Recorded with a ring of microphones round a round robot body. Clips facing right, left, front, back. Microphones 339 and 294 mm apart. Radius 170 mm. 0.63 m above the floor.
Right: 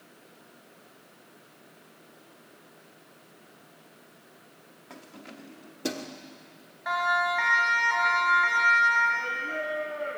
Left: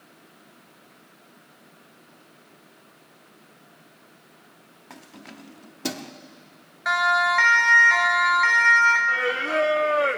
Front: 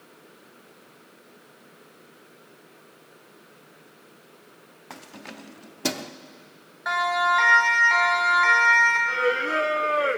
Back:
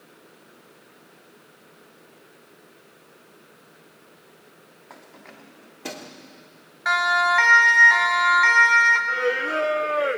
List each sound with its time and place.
4.9 s keys jangling: 20° left, 0.8 m
6.8 s a siren: 130° left, 3 m; by 9.0 s 115° left, 4 m
9.1 s singing: 85° left, 0.6 m